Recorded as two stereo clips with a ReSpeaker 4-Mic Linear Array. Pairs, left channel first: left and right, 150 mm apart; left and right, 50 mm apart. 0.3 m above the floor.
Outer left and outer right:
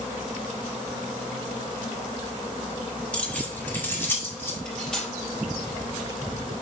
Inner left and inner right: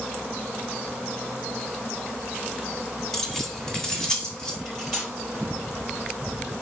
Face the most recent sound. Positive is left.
turn(degrees=5)  # may be behind; listen again after turning